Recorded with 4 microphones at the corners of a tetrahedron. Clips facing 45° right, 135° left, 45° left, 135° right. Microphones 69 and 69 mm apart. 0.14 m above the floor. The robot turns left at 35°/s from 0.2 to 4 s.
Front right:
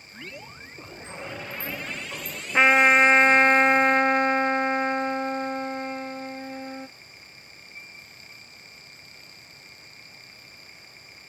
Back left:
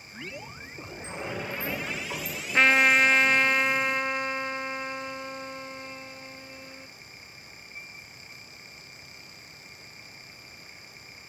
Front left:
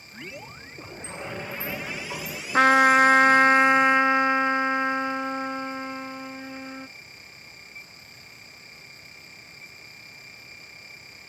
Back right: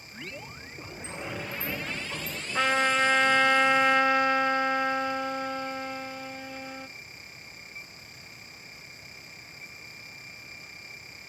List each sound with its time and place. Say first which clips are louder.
1.0 s a sliding door: back left 2 dB, front left 1 dB; 140° left, 4.5 m; by 2.4 s 90° left, 4.5 m
2.5 s a trumpet: front right 3 dB, front left 8 dB; 30° left, 0.6 m; by 6.9 s 20° right, 0.6 m